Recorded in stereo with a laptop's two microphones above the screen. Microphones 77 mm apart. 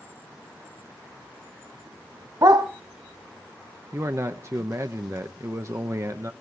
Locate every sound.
2.4 s a dog barking: 55° right (ahead or behind), 1.4 m
3.9 s a man speaking: 40° right (ahead or behind), 0.9 m